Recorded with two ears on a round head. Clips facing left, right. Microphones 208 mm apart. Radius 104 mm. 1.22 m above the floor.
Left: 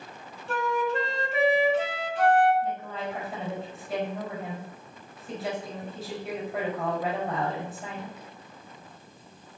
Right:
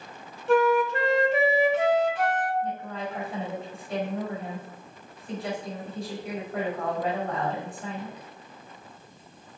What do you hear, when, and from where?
0.5 s a flute: 55° right (ahead or behind), 2 m
2.6 s a woman speaking: 5° left (ahead or behind), 5 m